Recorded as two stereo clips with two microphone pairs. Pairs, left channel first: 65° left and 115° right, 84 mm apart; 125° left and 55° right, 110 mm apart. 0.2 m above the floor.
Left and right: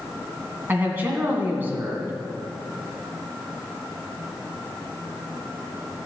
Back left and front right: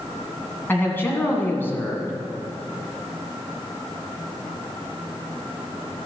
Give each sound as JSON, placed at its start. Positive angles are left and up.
{"t": 0.7, "sound": "a man speaking", "azimuth_deg": -175, "distance_m": 1.9}